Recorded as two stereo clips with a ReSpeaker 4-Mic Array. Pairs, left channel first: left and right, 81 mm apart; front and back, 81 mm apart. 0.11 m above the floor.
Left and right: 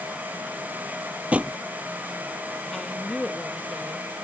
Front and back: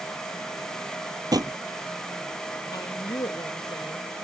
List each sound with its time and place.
1.3 s a drawer: 160° right
2.7 s a woman speaking: 10° left